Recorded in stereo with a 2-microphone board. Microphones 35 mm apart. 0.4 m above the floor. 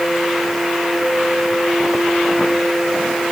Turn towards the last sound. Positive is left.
No sound to turn to.